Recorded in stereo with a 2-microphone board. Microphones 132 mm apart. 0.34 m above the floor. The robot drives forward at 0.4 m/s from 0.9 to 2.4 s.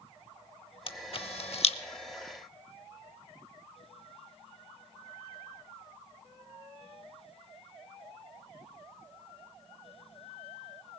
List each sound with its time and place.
0.9 s a camera shutter: 45° left (ahead or behind), 0.8 m; by 1.8 s 50° left (ahead or behind), 0.7 m